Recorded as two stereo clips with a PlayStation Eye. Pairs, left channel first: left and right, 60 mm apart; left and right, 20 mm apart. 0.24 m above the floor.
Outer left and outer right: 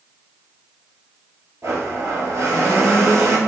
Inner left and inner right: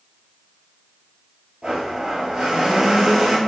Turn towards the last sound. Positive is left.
turn(degrees=-50)  # may be behind; listen again after turning